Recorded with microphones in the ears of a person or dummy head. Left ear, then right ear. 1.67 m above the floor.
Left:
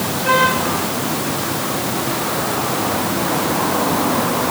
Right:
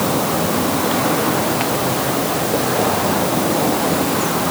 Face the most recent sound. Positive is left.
No sound to turn to.